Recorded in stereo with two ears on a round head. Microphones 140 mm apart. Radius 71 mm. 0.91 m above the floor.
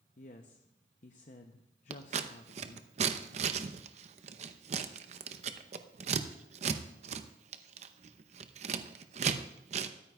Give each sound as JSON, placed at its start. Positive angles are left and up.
{"t": 0.2, "sound": "a woman speaking", "side_deg": 45, "distance_m": 0.6}
{"t": 1.9, "sound": "scissors", "side_deg": -45, "distance_m": 0.7}